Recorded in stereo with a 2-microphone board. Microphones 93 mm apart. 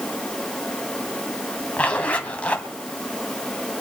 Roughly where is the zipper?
Centre.